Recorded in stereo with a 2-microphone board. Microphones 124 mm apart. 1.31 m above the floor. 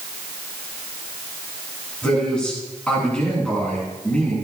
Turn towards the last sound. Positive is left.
turn(degrees=10)  # may be behind; listen again after turning